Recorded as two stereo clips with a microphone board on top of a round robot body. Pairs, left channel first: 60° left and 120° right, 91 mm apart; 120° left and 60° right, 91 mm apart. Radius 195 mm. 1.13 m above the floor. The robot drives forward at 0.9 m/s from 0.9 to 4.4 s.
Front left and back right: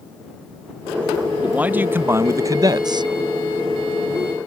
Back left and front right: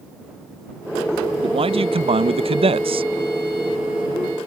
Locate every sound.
1.4 s a man speaking: 40° right; by 3.1 s 80° right